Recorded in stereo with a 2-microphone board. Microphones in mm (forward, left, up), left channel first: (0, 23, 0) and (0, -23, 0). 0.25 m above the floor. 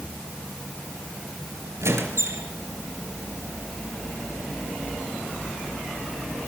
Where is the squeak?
75° right (ahead or behind), 3 m.